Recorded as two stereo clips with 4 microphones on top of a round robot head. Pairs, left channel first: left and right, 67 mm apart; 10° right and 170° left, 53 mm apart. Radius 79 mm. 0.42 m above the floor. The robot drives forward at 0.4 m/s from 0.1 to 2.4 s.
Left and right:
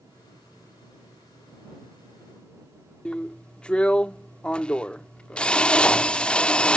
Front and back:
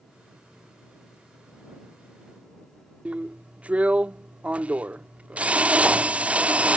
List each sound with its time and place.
3.0 s a drill: 145° left